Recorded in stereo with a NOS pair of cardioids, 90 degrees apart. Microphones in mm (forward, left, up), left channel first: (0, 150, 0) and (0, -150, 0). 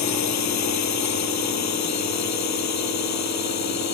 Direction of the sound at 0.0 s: 65° left.